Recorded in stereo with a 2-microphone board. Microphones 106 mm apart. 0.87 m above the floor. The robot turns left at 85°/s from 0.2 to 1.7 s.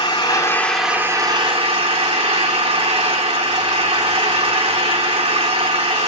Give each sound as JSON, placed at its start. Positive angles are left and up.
{"t": 0.0, "sound": "an engine running", "azimuth_deg": 50, "distance_m": 2.5}